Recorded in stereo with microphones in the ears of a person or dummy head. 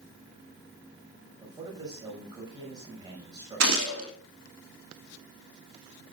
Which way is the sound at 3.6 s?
80° right.